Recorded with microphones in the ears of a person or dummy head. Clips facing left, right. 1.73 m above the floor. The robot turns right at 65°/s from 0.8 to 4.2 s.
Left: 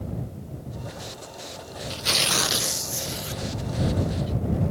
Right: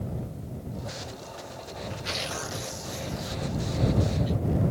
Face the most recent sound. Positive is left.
turn(degrees=-160)